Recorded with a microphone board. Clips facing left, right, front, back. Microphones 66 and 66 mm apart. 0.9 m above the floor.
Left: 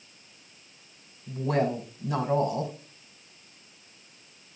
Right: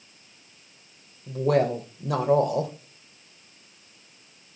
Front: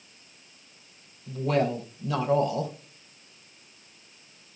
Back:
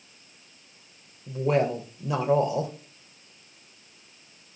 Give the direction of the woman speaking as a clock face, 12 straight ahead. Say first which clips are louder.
Right 4 dB, back 2 dB; 4 o'clock.